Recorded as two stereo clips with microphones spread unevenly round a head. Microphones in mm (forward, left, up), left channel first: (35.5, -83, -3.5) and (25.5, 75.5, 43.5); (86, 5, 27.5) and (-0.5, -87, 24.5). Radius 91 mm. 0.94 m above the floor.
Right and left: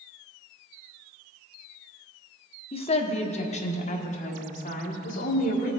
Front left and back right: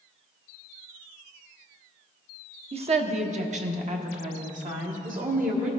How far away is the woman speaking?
About 0.9 m.